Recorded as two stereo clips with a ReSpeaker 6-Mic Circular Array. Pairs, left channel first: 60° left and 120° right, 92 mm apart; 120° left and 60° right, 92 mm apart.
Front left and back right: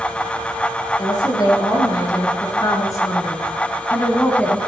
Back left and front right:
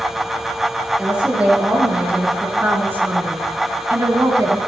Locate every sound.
1.0 s a woman speaking: 20° left, 4 m; by 4.6 s 15° right, 1.9 m